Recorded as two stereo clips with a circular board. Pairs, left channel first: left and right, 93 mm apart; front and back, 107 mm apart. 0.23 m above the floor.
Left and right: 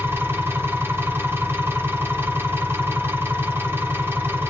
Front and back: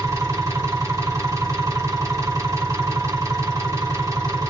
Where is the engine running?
140° right, 1.8 m.